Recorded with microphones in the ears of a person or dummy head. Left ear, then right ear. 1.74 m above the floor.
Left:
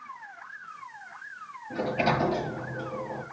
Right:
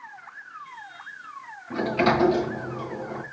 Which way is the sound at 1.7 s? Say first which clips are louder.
Right 4 dB; 65° right (ahead or behind).